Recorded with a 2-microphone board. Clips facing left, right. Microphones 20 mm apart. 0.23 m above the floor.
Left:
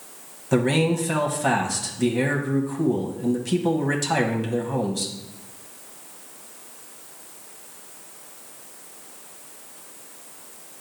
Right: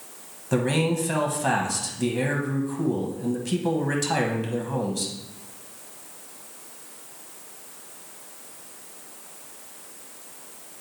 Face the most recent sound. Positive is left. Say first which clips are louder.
# left 3 dB
turn(degrees=5)  # may be behind; listen again after turning